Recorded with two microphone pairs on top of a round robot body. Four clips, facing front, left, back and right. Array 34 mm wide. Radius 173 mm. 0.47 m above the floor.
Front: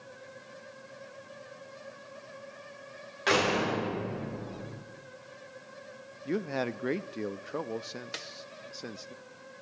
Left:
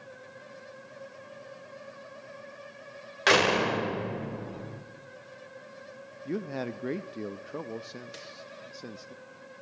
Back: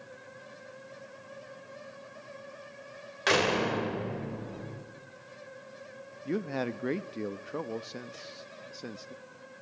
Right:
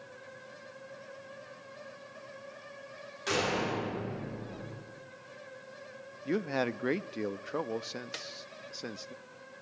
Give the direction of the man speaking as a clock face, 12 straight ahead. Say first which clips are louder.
Right 3 dB, front 1 dB; 3 o'clock.